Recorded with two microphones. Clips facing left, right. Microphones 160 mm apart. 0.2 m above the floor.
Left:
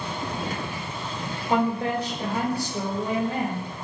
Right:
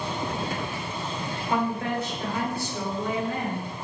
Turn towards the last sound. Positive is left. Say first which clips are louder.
# left 3 dB
turn(degrees=35)  # may be behind; listen again after turning